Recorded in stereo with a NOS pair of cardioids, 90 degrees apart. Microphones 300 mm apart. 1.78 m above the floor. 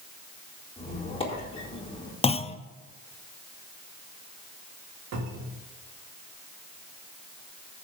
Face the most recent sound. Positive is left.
turn(degrees=-60)